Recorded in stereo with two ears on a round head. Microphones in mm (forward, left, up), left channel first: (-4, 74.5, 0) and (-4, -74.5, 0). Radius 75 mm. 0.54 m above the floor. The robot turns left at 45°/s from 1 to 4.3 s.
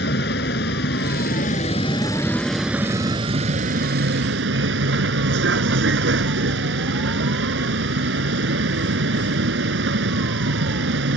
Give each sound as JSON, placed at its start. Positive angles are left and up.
{"t": 0.0, "sound": "a vehicle", "azimuth_deg": 70}